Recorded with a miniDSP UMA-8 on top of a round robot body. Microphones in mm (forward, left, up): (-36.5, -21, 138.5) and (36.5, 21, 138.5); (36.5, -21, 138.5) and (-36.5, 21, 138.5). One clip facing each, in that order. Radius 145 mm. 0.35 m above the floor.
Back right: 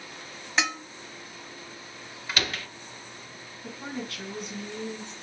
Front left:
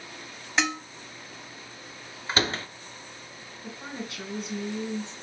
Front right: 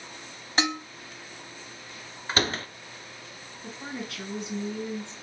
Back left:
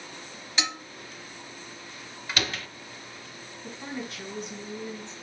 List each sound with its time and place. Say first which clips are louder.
0.6 s dishes clattering: front left 1 dB, front right 5 dB; 60° right, 0.9 m
2.3 s a door slam: front left 4 dB, front right 4 dB; 5° right, 0.7 m
3.6 s a woman speaking: back right 2 dB, even; 45° right, 3 m